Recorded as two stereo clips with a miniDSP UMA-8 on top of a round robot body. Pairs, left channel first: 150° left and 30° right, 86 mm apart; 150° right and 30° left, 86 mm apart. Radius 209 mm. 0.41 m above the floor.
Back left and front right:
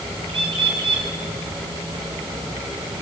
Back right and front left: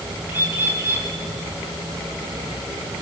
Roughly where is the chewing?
No chewing in this recording.